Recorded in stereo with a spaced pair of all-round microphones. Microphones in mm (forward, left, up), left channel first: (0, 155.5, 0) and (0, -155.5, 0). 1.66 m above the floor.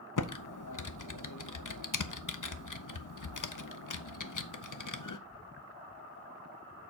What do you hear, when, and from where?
0.2 s typing on a keyboard: 75° left (ahead or behind), 0.6 m